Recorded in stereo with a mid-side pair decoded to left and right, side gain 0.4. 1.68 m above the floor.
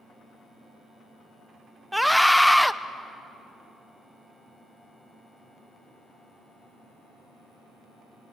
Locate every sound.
1.9 s a scream: straight ahead, 1.1 m